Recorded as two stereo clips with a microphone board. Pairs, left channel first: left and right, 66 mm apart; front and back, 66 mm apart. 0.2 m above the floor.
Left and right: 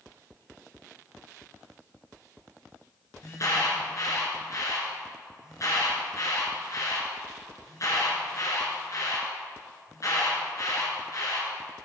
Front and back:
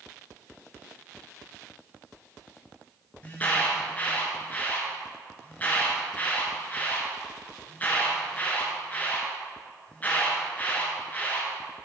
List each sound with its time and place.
3.2 s an alarm: 60° left, 2.5 m